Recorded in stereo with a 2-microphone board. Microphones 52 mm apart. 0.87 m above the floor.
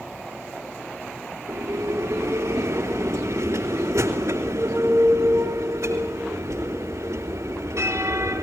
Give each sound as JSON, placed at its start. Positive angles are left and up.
{"t": 1.5, "sound": "a bell", "side_deg": -70, "distance_m": 3.0}